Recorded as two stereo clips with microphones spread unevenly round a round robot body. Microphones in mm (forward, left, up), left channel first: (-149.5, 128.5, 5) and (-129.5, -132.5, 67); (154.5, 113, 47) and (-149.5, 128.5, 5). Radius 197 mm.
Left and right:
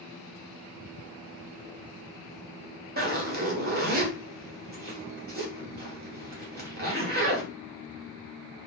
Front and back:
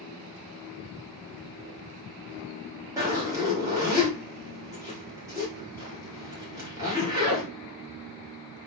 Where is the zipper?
130° right, 1.5 m.